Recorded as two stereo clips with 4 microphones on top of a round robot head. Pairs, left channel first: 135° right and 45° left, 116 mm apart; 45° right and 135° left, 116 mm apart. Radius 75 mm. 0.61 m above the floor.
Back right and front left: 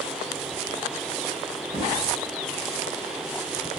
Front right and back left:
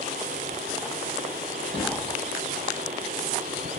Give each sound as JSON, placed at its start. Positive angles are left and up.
{"t": 1.7, "sound": "knocking", "azimuth_deg": 10, "distance_m": 3.0}